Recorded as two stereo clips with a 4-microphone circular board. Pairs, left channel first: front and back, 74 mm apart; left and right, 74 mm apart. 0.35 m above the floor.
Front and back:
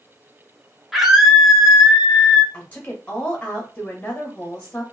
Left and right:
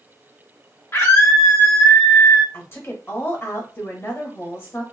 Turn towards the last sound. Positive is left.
turn(degrees=60)